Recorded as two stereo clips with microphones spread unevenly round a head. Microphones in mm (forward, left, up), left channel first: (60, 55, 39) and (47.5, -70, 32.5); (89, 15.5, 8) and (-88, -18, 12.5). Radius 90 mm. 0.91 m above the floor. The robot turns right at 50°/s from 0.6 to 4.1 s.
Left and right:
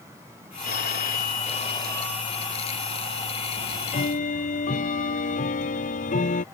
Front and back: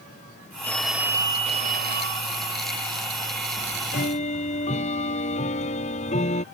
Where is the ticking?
40° left; by 6.5 s 65° left.